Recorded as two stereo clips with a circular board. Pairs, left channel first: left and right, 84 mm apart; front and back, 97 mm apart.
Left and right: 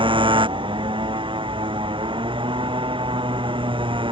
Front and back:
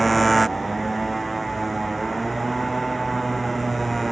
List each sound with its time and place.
0.0 s a motorcycle: 90° right